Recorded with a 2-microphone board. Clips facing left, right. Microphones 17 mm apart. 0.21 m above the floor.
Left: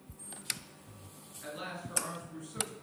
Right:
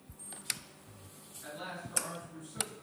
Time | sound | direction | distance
1.4 | a man speaking | 35° left (ahead or behind) | 2.0 m